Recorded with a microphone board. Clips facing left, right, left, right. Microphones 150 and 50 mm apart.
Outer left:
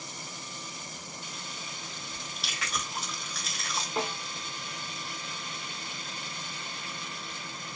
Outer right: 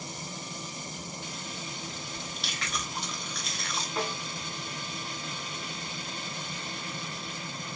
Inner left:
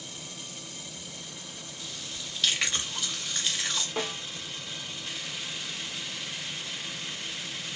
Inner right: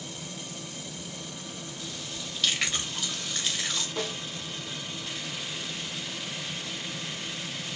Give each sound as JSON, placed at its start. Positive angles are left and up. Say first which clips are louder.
{"t": 2.1, "sound": "chewing", "louder": "outer right 3 dB, even", "side_deg": 0, "distance_m": 0.7}
{"t": 4.0, "sound": "a snare drum", "louder": "outer left 1 dB, inner left 1 dB", "side_deg": 25, "distance_m": 0.9}